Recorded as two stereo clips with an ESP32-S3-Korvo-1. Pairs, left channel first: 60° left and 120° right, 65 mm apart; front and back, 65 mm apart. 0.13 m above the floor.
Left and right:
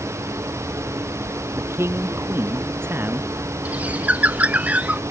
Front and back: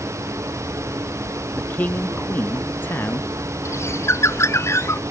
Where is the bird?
50° right.